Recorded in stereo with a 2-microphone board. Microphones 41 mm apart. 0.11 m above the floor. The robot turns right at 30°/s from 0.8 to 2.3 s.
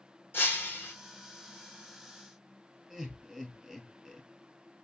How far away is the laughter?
About 1.8 m.